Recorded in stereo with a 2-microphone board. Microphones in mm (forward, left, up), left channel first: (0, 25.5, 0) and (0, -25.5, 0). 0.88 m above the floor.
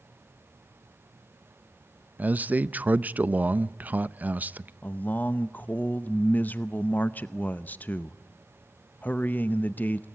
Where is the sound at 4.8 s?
35° left (ahead or behind), 0.6 m.